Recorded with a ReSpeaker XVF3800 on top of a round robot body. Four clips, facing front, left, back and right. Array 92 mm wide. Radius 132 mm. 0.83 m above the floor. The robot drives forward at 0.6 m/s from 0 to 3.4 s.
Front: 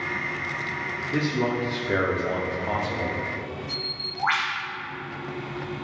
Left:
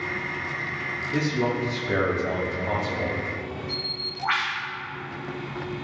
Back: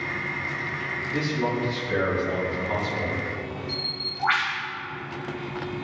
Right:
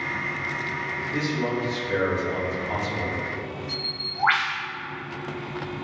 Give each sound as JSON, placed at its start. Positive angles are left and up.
{"t": 1.1, "sound": "a man speaking", "azimuth_deg": 25, "distance_m": 3.0}
{"t": 3.7, "sound": "a bird", "azimuth_deg": -70, "distance_m": 4.0}